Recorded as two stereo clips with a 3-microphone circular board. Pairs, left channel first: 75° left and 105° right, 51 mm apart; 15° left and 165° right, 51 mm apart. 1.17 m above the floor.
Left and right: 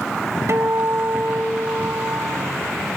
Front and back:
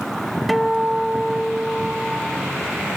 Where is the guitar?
70° right, 0.8 m.